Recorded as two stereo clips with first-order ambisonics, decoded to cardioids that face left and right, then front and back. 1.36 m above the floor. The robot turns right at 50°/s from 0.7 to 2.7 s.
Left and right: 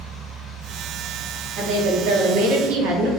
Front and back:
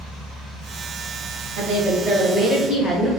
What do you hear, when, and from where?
1.6 s a woman speaking: 135° right, 0.9 m; by 3.1 s 75° right, 0.9 m